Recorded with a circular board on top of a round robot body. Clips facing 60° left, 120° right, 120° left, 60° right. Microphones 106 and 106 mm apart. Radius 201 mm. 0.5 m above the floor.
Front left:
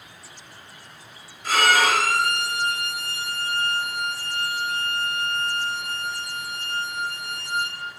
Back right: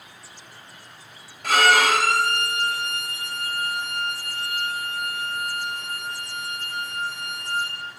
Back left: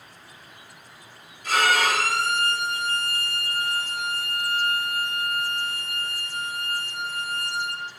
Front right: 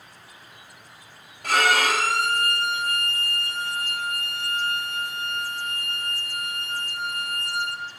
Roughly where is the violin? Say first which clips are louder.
Back right 2 dB, front right 1 dB; right.